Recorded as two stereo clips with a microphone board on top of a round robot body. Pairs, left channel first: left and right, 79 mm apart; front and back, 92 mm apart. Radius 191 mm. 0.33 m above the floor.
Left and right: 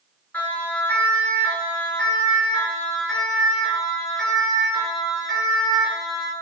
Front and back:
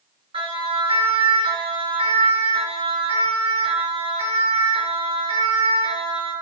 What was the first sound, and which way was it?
A siren, 160° left.